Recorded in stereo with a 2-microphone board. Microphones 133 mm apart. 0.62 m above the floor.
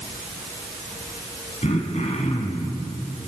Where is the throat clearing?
60° left (ahead or behind), 3.5 m.